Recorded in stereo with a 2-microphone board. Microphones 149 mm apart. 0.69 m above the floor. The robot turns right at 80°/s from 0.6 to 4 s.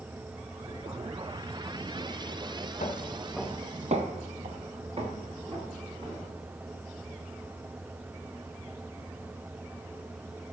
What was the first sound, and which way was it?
Footsteps, 55° left (ahead or behind).